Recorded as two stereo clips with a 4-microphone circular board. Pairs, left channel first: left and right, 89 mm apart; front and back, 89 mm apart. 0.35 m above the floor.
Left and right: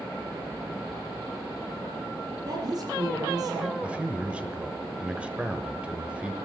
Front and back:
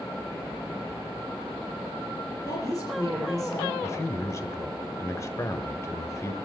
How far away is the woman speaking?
About 8 m.